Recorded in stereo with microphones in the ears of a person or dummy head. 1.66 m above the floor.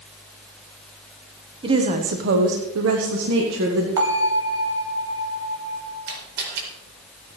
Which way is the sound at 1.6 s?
30° right (ahead or behind).